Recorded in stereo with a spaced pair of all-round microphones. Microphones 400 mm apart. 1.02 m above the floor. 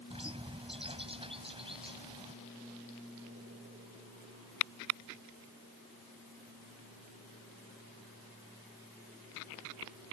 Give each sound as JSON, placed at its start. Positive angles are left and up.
{"t": 0.1, "sound": "a bird", "side_deg": -15}